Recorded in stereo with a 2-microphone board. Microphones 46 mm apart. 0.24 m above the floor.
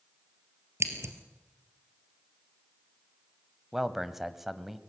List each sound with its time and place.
0.8 s scissors: 80° right, 2 m
3.7 s a man speaking: 5° right (ahead or behind), 1.0 m